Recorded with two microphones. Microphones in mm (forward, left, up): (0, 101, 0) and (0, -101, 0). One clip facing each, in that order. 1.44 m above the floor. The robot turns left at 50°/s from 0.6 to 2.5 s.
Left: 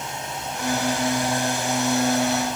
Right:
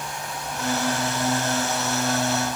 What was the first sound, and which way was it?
Only background noise.